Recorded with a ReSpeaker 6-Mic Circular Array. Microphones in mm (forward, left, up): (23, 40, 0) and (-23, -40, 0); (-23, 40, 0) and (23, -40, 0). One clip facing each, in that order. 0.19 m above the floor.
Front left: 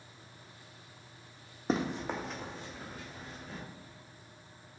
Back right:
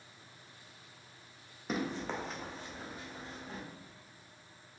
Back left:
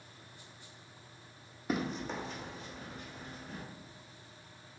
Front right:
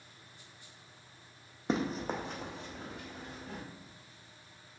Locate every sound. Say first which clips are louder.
1.7 s running footsteps: front left 3 dB, front right 2 dB; 5° left, 0.6 m; by 3.6 s 55° right, 1.5 m